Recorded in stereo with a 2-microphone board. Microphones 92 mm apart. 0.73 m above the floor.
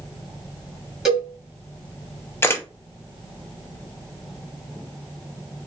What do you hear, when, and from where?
1.1 s a cowbell: 5° right (ahead or behind), 1.6 m
2.4 s a camera shutter: 25° left (ahead or behind), 0.7 m